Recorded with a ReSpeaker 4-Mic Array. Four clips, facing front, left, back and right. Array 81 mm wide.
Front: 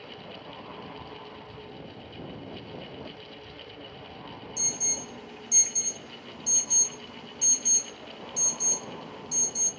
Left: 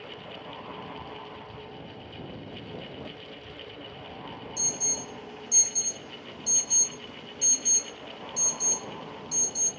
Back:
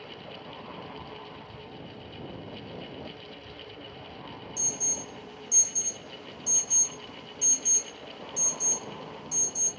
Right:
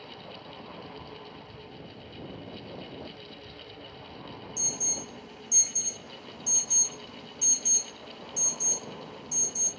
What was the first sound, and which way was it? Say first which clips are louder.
An alarm: left 2 dB, even; 40° left.